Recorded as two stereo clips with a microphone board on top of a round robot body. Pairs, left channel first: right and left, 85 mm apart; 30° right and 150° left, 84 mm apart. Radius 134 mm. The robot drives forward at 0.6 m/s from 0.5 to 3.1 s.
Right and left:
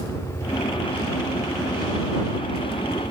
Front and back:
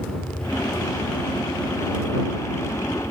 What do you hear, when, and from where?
0.0 s a helicopter: 105° right; by 3.1 s 55° left